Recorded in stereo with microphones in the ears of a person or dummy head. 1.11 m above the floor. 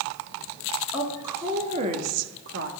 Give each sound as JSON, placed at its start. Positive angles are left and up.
{"t": 0.9, "sound": "a woman speaking", "side_deg": -5, "distance_m": 1.7}